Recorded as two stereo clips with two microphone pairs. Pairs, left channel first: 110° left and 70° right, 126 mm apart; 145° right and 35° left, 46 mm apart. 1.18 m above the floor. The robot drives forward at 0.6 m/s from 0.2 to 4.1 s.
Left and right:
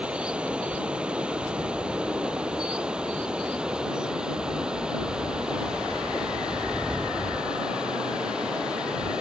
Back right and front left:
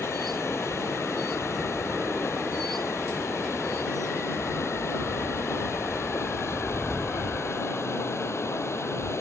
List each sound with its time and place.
0.0 s running water: 150° right; by 9.2 s 155° right